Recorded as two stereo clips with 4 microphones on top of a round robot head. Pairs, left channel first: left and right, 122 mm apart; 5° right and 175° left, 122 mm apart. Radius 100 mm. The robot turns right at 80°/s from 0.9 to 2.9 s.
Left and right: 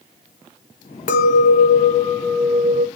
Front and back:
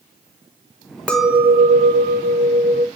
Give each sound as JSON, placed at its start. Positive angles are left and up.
{"t": 1.1, "sound": "a clink", "azimuth_deg": 75, "distance_m": 1.2}